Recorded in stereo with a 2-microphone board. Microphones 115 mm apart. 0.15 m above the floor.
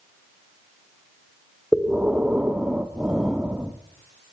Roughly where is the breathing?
Centre.